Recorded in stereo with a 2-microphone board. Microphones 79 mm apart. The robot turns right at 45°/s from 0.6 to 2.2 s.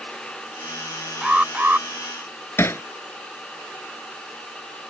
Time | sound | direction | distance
1.2 | an alarm | 10° right (ahead or behind) | ?
2.6 | hammering | 35° left (ahead or behind) | ?